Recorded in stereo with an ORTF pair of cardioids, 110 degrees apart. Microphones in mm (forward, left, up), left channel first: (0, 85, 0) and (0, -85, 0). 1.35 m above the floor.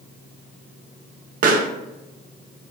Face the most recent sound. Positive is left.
turn(degrees=-55)